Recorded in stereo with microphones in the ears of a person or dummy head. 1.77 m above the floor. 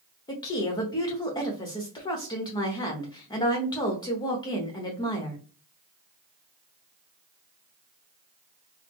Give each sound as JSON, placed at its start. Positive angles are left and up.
{"t": 0.3, "sound": "a woman speaking", "side_deg": 25, "distance_m": 0.9}